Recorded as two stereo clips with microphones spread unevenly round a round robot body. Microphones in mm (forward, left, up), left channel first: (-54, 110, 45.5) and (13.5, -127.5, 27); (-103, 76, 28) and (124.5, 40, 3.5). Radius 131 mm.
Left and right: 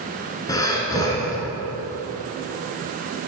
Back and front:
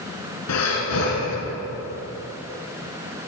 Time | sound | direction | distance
0.5 | breathing | straight behind | 1.8 m